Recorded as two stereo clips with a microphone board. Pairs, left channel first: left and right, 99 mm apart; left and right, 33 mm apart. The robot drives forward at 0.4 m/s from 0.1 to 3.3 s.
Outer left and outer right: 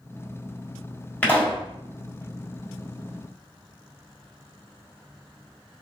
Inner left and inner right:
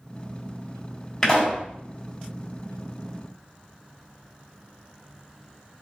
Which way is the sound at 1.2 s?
15° left (ahead or behind).